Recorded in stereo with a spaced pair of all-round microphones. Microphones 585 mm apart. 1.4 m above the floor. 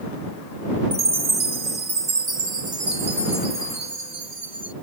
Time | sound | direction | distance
0.9 | a chime | 70° right (ahead or behind) | ?